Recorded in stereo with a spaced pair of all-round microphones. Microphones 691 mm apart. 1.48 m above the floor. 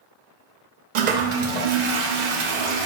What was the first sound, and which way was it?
A toilet flushing, 75° right (ahead or behind).